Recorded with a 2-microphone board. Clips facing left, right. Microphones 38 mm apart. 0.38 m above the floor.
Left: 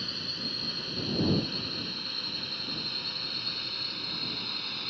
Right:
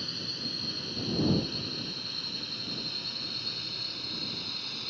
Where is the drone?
15° left (ahead or behind); by 4.9 s 20° left (ahead or behind).